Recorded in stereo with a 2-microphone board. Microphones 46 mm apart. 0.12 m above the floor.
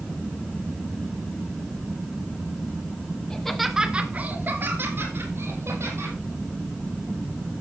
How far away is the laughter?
About 1.4 m.